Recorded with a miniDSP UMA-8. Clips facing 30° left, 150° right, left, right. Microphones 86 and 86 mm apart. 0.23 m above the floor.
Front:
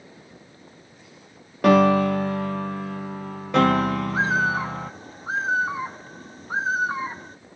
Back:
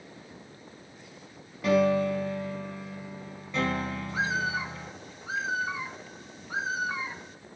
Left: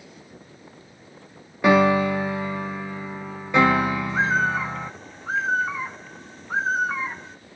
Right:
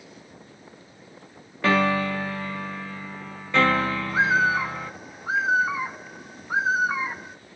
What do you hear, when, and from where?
1.6 s a piano: 15° left, 0.8 m
4.1 s a bird: 10° right, 0.8 m